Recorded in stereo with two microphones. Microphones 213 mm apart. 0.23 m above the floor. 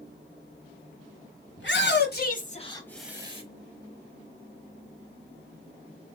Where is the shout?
60° left (ahead or behind), 2 m; by 3.4 s 30° right (ahead or behind), 1.1 m.